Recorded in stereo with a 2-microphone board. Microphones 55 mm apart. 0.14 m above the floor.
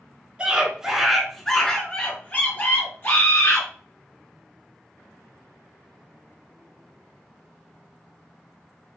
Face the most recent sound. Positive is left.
turn(degrees=50)  # may be behind; listen again after turning